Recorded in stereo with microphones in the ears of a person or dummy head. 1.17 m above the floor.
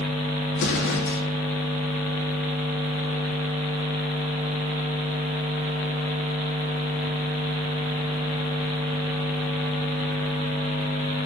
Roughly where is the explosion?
Left.